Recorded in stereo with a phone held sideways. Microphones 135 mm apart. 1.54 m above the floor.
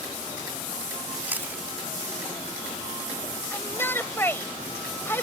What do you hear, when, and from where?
1.3 s chewing: 15° right (ahead or behind)
3.5 s a shout: 15° left (ahead or behind)